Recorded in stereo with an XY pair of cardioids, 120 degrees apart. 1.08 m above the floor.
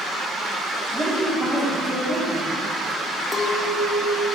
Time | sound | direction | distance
0.9 | a woman speaking | 25° right | 3 m
3.3 | a clink | 25° left | 0.7 m